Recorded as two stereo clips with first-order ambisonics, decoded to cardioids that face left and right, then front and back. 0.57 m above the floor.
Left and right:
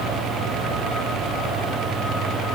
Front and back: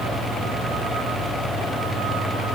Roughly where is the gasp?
I don't hear a gasp.